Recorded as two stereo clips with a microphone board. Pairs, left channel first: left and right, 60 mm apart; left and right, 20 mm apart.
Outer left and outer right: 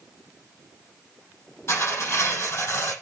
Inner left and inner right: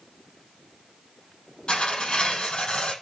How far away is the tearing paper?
About 7.5 m.